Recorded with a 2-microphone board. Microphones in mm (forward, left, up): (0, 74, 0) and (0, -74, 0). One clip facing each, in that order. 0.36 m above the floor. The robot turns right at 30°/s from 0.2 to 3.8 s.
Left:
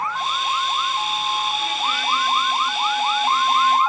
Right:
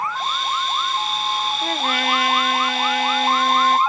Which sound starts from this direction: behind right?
A trumpet, at 1.6 s.